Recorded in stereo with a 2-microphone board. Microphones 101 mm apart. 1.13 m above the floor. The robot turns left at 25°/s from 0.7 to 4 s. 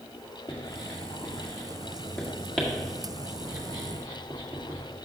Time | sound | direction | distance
0.5 | writing | 50° left (ahead or behind) | 1.7 m